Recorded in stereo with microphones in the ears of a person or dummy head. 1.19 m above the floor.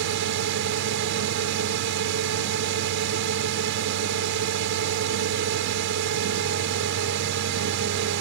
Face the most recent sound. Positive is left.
turn(degrees=-60)  # may be behind; listen again after turning